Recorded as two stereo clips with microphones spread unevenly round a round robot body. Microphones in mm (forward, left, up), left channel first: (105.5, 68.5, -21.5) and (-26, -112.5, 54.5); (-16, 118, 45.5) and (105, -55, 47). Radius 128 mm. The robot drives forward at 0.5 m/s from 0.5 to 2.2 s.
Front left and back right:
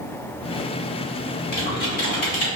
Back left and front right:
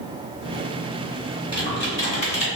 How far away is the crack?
I don't hear a crack.